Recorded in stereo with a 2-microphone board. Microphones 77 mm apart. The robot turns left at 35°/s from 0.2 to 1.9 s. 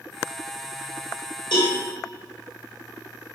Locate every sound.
1.5 s a cowbell: 85° left, 3.5 m; by 1.8 s 75° left (ahead or behind), 3.5 m